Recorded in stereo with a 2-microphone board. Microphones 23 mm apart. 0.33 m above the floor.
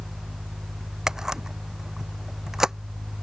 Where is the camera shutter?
25° right (ahead or behind).